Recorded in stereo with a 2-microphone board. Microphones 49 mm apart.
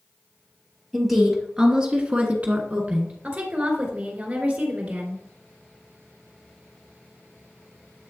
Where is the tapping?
I don't hear tapping.